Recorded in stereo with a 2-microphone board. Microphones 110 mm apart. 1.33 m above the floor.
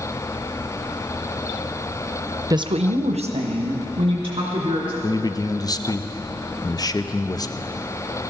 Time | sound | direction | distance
2.5 | a woman speaking | 30° right (ahead or behind) | 0.6 m
5.0 | a man speaking | 35° left (ahead or behind) | 0.5 m